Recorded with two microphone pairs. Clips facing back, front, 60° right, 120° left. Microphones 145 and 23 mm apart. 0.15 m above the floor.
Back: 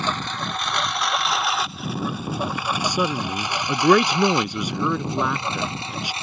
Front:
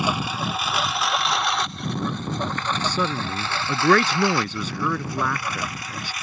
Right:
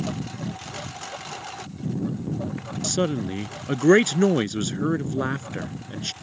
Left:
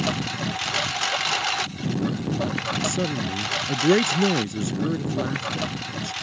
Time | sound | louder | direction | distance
0.0 | a lawn mower | front 2 dB, left 5 dB | 80° left | ?
2.8 | a man speaking | back 3 dB, even | 105° right | ?